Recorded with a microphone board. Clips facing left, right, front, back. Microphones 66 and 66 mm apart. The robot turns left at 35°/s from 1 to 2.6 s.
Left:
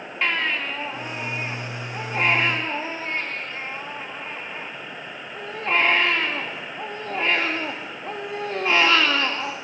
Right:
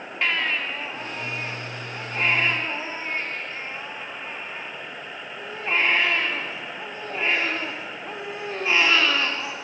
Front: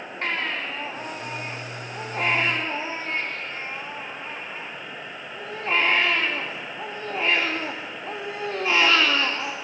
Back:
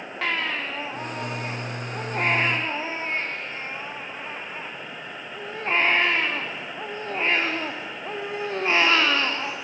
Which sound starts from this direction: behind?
A baby crying, at 0.2 s.